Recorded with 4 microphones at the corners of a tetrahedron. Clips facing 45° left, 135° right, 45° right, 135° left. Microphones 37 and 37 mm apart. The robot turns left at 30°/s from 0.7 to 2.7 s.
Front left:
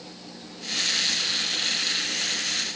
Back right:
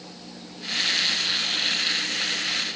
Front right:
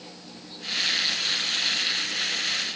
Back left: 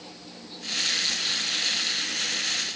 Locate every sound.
Only background noise.